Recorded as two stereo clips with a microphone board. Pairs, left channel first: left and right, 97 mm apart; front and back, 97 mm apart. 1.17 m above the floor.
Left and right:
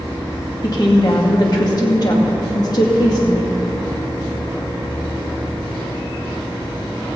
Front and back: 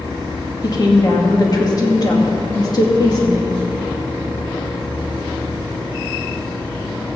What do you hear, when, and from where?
0.6 s a woman speaking: 45° left, 2.5 m